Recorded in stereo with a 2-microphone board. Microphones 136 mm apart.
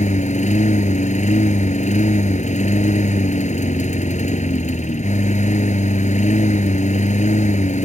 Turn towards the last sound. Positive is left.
turn(degrees=60)  # may be behind; listen again after turning